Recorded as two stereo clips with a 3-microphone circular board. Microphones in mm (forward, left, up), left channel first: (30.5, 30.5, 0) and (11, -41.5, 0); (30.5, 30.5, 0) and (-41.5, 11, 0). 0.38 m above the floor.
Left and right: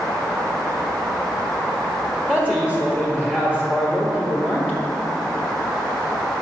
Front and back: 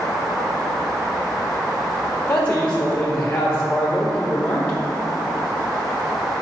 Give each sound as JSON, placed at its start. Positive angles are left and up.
{"t": 2.3, "sound": "a man speaking", "azimuth_deg": -40, "distance_m": 1.2}